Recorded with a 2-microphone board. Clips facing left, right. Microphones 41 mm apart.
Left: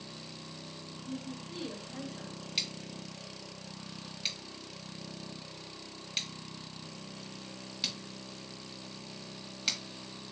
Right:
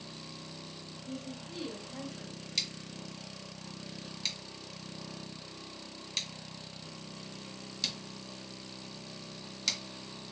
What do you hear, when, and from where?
1.1 s a woman speaking: 10° left (ahead or behind), 1.7 m
2.6 s scissors: 15° left (ahead or behind), 2 m